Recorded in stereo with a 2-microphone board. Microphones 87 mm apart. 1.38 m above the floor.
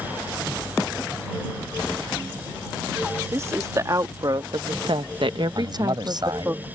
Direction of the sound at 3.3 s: 35° right (ahead or behind).